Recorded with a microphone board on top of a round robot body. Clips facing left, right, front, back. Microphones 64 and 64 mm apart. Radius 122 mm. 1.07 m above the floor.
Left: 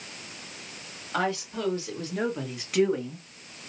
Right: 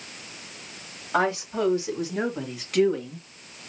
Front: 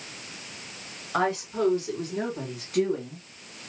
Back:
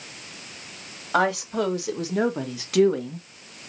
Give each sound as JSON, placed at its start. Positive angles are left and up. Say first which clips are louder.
{"t": 1.1, "sound": "a woman speaking", "louder": "right 5 dB, back 4 dB", "azimuth_deg": -155, "distance_m": 2.5}